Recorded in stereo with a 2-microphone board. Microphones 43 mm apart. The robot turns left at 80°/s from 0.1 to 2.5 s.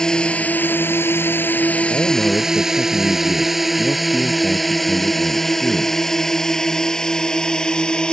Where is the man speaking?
50° left; by 6.1 s straight ahead.